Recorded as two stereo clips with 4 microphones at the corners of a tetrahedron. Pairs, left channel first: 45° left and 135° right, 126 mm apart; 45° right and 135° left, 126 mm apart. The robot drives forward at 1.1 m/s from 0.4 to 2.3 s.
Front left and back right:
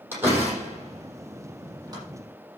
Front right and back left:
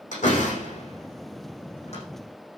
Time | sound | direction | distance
0.1 | a door slam | 65° right | 7 m